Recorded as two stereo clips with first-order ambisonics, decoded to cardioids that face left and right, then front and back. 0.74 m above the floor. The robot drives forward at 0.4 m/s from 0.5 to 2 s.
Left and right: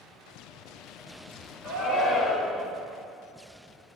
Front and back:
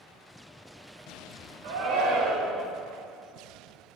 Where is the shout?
Straight behind, 2.0 m.